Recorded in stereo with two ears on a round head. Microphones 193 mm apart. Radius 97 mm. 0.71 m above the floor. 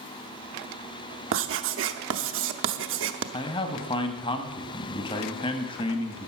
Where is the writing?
65° right (ahead or behind), 0.8 m.